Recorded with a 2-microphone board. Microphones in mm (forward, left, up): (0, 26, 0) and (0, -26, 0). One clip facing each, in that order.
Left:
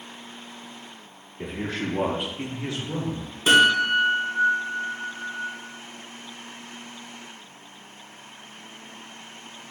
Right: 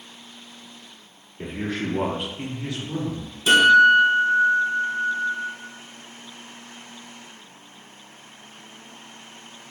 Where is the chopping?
No chopping in this recording.